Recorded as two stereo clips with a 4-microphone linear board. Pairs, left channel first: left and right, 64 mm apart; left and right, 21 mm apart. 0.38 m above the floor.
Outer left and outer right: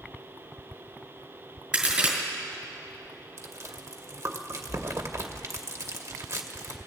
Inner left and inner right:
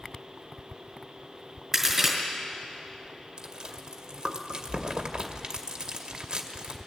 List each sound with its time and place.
1.7 s a crack: 15° right (ahead or behind), 2.5 m
3.4 s chewing: 45° right (ahead or behind), 0.8 m